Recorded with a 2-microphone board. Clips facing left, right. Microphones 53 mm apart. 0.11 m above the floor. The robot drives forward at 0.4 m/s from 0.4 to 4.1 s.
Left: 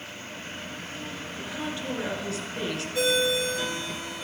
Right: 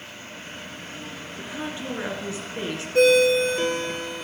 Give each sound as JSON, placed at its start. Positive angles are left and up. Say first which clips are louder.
{"t": 1.4, "sound": "a woman speaking", "louder": "right 1 dB", "side_deg": -30, "distance_m": 1.8}
{"t": 3.0, "sound": "a ringtone", "louder": "right 9 dB", "side_deg": -60, "distance_m": 0.9}